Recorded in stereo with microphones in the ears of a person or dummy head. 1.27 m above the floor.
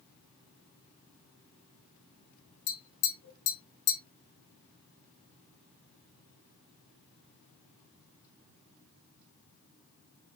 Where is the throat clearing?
I don't hear throat clearing.